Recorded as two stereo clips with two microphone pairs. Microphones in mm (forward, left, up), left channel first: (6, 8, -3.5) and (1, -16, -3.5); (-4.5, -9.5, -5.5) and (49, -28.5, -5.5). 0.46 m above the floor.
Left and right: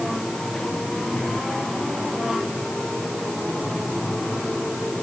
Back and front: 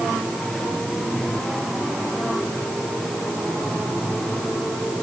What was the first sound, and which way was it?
Only background noise.